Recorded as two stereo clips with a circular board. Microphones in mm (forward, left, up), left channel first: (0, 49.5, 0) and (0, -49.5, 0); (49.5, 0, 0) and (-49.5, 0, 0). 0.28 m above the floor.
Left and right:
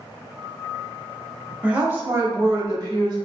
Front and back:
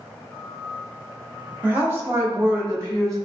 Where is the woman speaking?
145° right, 0.9 m; by 3.1 s 125° right, 1.7 m.